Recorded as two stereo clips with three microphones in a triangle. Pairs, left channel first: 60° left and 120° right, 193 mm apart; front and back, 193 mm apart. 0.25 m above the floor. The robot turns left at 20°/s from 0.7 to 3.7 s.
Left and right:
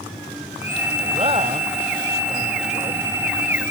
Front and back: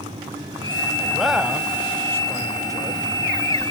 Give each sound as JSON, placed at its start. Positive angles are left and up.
{"t": 1.0, "sound": "a man speaking", "azimuth_deg": -90, "distance_m": 1.3}